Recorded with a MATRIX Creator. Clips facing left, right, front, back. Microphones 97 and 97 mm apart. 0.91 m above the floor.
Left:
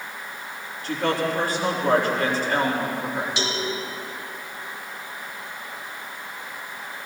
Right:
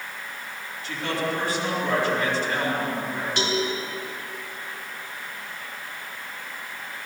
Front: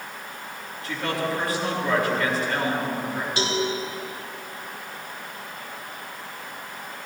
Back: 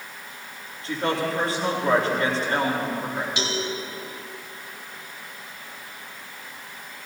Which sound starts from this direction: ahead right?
A cowbell, at 3.4 s.